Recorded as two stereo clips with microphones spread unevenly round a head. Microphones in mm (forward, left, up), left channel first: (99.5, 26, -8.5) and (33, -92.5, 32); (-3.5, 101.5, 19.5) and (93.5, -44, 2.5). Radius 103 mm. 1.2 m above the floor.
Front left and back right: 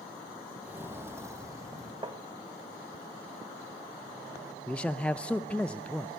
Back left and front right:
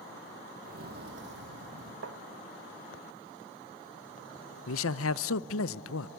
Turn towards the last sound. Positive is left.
turn(degrees=145)